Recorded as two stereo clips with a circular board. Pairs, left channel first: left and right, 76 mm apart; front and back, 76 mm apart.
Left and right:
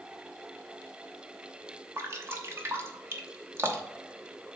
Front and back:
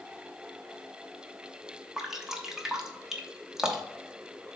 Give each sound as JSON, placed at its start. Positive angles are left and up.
{"t": 2.0, "sound": "dripping", "azimuth_deg": -100, "distance_m": 1.0}